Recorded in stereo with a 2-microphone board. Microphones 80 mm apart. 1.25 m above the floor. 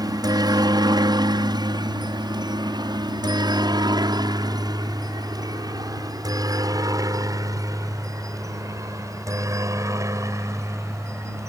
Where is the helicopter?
55° right (ahead or behind); by 11.5 s 40° right (ahead or behind).